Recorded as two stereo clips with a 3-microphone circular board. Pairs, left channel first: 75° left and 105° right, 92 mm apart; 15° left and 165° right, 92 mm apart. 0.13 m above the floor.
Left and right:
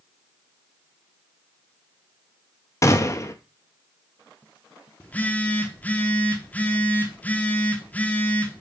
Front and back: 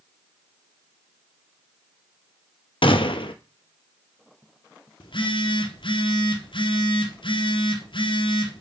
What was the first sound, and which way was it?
A gunshot, 20° left.